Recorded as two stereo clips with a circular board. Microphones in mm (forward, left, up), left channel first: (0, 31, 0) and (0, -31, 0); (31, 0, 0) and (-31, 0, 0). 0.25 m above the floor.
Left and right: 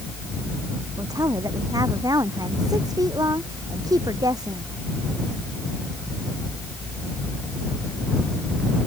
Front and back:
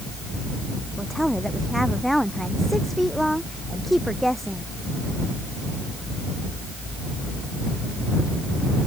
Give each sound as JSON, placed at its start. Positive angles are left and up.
{"t": 1.0, "sound": "a woman speaking", "azimuth_deg": -85}